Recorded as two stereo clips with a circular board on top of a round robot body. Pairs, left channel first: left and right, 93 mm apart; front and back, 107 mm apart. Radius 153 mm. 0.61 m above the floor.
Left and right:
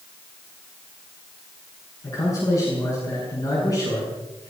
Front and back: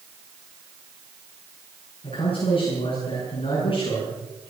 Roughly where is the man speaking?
Ahead left.